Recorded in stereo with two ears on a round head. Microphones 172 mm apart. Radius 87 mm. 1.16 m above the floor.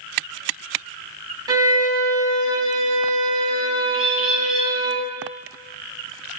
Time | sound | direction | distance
1.5 | a violin | 20° right (ahead or behind) | 0.5 m
3.9 | a bird | 5° right (ahead or behind) | 0.7 m